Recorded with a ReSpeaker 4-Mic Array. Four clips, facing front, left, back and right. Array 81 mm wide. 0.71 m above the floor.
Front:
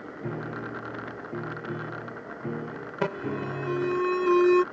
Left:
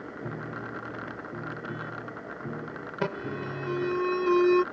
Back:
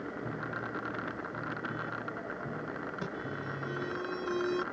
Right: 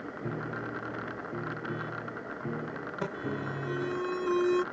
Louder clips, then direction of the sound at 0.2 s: Right 1 dB, front 7 dB; 10° right.